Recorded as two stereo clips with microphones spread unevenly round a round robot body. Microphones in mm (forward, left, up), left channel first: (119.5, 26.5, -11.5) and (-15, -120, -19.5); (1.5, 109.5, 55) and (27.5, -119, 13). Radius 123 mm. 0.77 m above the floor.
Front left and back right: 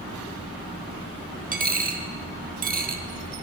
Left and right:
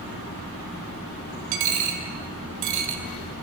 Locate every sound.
1.5 s a dropped coin: 85° right, 1.2 m